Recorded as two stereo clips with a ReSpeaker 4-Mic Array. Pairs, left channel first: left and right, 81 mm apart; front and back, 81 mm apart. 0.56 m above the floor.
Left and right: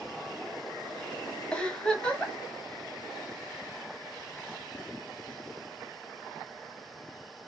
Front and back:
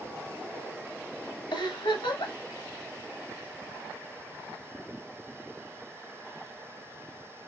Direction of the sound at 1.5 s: 10° left.